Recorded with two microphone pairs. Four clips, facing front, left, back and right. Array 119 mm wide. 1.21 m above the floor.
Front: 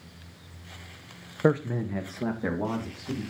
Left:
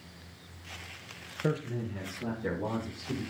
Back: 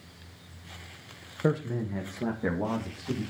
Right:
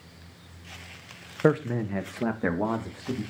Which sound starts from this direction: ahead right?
A man speaking, at 1.4 s.